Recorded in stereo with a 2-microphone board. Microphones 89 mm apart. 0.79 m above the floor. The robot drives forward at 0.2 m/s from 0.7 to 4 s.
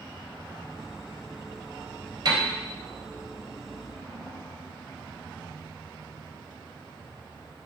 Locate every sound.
2.2 s a piano: 50° right (ahead or behind), 3.5 m